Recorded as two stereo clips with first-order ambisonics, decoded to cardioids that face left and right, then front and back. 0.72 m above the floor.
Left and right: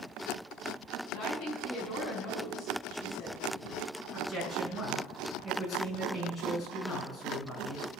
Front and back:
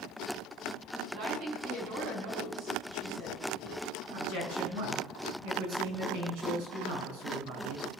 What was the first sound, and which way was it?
A woman speaking, 135° left.